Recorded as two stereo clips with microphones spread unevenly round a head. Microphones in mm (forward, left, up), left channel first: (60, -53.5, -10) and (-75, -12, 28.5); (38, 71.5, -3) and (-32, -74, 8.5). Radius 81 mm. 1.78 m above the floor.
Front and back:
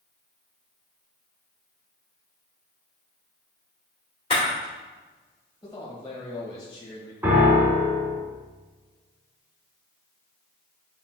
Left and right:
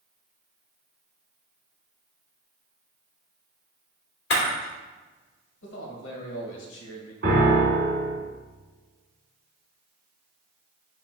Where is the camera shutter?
50° left, 3 m.